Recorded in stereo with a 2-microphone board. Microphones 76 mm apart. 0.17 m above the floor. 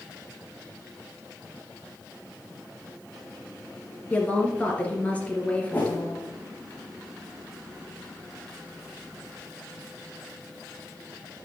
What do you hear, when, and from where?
4.1 s a woman speaking: 15° left (ahead or behind), 3 m
5.7 s a whoosh: 20° left (ahead or behind), 3 m